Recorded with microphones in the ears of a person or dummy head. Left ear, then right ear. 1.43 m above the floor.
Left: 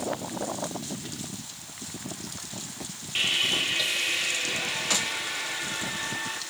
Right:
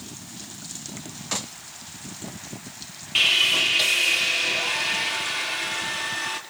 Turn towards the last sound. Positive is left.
turn(degrees=-35)  # may be behind; listen again after turning